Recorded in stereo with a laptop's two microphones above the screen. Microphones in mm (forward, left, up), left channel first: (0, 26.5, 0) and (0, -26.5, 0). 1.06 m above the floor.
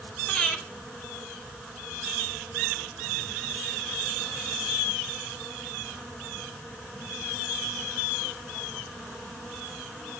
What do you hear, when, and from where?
0.3 s breathing: 20° left (ahead or behind), 3 m